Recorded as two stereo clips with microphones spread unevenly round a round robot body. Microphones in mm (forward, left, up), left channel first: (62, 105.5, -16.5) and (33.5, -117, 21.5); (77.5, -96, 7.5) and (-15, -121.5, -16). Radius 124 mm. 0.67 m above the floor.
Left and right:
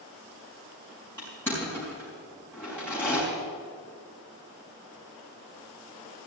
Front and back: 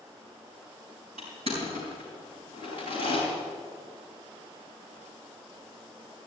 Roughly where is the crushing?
Behind.